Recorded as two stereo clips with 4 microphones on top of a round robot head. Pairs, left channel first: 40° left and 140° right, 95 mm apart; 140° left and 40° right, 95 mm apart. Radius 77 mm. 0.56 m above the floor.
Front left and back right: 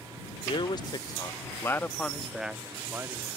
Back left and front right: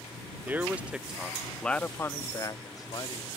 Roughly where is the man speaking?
Ahead left.